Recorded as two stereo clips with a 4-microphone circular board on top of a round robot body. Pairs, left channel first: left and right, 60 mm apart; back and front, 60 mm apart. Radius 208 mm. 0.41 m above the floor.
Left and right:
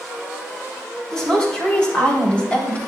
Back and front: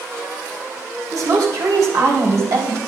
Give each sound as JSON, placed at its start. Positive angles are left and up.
{"t": 1.1, "sound": "a woman speaking", "azimuth_deg": 10, "distance_m": 4.0}